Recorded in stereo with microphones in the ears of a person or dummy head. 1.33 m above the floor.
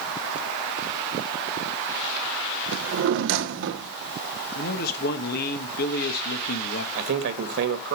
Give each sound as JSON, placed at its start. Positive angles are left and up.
{"t": 2.7, "sound": "a drawer", "side_deg": -70, "distance_m": 1.1}
{"t": 4.5, "sound": "a man speaking", "side_deg": 50, "distance_m": 1.4}
{"t": 7.0, "sound": "a man speaking", "side_deg": -65, "distance_m": 1.9}